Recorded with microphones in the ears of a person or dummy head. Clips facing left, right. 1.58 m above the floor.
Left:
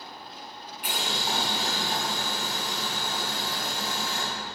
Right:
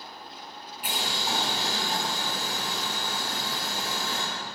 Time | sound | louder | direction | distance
0.8 | boiling | even | 5° right (ahead or behind) | 2.5 m